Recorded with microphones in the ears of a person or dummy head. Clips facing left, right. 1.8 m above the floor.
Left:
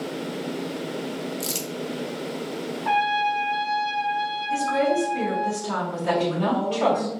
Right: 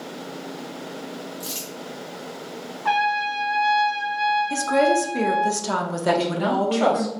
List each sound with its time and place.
1.4 s crumpling: 35° left (ahead or behind), 0.6 m
2.9 s a trumpet: 80° right, 0.8 m
4.5 s a woman speaking: 70° right (ahead or behind), 0.8 m
6.1 s a woman speaking: 30° right (ahead or behind), 0.7 m